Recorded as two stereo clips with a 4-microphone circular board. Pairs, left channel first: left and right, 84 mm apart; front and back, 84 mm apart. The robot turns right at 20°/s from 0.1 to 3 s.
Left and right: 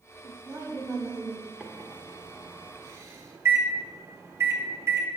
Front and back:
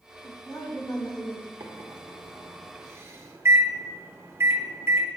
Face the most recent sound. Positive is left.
turn(degrees=-135)